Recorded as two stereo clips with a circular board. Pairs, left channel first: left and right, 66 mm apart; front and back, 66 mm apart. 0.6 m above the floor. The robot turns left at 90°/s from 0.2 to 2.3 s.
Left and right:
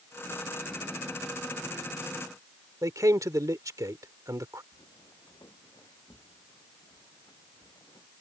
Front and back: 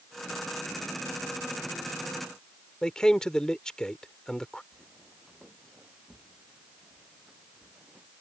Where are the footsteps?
100° left; by 8.1 s 105° left.